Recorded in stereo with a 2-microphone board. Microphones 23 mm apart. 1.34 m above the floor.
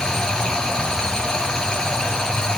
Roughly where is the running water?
Left.